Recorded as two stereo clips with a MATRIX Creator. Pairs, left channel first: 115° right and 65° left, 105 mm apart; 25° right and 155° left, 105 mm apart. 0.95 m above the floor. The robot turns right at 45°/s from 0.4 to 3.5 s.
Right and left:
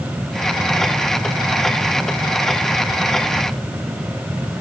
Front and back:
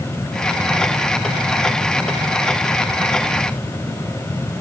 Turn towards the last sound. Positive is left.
No sound to turn to.